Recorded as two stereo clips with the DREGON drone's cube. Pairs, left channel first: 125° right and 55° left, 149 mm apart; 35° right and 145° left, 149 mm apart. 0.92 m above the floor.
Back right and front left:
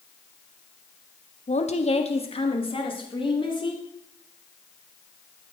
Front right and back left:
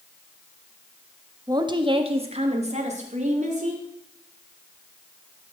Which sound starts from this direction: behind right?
A woman speaking, at 1.5 s.